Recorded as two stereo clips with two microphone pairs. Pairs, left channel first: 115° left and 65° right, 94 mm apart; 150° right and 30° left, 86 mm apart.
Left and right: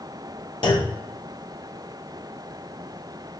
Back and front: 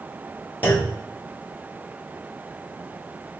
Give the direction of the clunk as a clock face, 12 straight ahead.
7 o'clock.